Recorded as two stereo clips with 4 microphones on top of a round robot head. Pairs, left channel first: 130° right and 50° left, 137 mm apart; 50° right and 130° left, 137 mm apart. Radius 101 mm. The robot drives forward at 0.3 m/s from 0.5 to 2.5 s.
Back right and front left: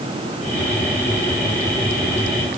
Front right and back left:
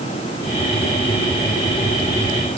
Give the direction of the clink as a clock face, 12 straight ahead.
I don't hear a clink.